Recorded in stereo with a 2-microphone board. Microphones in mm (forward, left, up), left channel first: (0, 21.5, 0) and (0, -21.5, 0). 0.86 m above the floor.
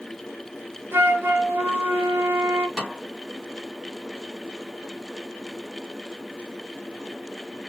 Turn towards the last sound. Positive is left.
turn(degrees=5)  # may be behind; listen again after turning